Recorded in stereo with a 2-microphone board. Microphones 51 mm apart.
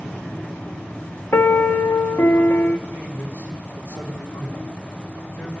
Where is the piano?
45° left (ahead or behind), 1.1 m.